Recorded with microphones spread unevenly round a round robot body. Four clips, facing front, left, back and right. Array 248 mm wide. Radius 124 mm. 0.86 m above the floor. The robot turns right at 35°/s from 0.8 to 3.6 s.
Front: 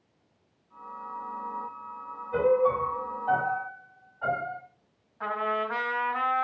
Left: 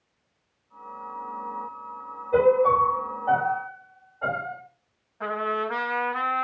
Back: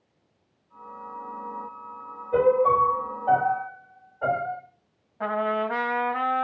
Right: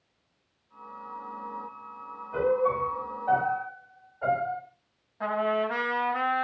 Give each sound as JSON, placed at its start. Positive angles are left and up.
{"t": 2.3, "sound": "a piano", "azimuth_deg": 125, "distance_m": 3.0}
{"t": 5.2, "sound": "a trumpet", "azimuth_deg": -175, "distance_m": 2.5}